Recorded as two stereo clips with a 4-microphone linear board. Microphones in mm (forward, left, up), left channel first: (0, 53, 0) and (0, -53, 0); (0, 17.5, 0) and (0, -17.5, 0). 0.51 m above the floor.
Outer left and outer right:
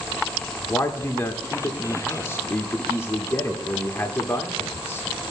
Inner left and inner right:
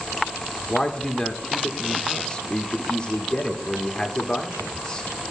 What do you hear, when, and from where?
0.7 s a man speaking: 25° left (ahead or behind), 1.5 m